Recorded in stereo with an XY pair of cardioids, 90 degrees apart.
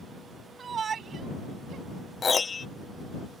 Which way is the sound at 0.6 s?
50° right.